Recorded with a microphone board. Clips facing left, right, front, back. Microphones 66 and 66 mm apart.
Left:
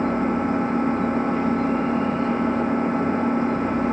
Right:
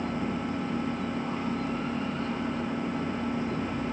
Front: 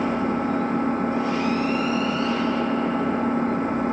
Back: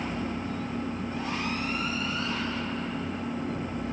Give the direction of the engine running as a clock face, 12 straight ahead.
11 o'clock.